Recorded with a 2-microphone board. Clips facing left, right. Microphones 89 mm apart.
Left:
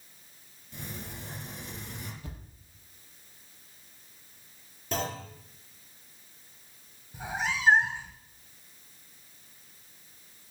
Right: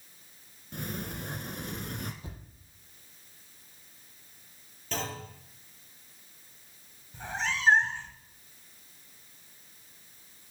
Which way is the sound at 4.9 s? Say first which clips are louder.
Left 3 dB; 15° left (ahead or behind).